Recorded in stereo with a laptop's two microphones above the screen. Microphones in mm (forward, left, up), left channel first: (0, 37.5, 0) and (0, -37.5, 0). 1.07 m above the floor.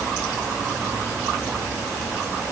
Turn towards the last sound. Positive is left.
No sound to turn to.